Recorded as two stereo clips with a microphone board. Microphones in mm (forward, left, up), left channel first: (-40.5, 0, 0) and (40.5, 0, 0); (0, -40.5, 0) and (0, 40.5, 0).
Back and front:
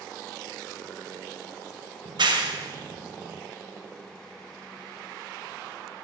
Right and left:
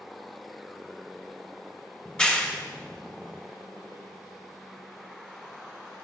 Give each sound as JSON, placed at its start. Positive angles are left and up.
{"t": 2.0, "sound": "a clap", "azimuth_deg": -10, "distance_m": 0.6}